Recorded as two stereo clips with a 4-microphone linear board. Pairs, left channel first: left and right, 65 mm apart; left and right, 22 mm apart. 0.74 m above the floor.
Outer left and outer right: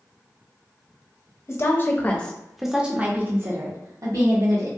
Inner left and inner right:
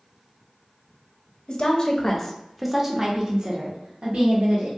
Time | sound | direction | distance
1.5 | a woman speaking | 40° left (ahead or behind) | 0.8 m